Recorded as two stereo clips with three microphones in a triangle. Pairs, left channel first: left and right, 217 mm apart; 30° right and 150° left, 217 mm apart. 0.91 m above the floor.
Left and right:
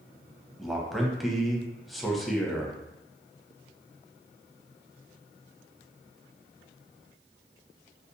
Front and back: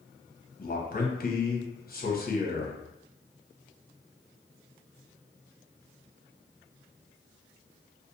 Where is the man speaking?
Straight ahead, 0.6 m.